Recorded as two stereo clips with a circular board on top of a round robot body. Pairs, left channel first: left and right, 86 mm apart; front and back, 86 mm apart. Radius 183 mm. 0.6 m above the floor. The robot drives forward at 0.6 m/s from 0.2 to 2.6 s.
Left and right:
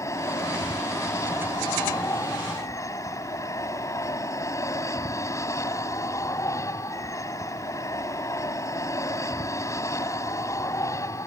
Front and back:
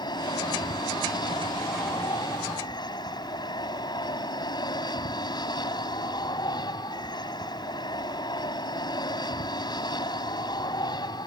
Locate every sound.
0.0 s an aircraft: 35° left